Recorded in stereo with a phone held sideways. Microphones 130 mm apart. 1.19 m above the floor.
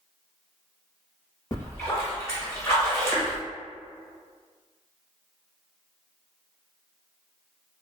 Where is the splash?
25° left (ahead or behind), 1.1 m.